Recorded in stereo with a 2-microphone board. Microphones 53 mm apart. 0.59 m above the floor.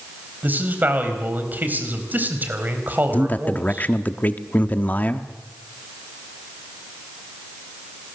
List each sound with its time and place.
0.4 s a man speaking: 35° right (ahead or behind), 4 m
3.1 s a man speaking: 35° left (ahead or behind), 1.2 m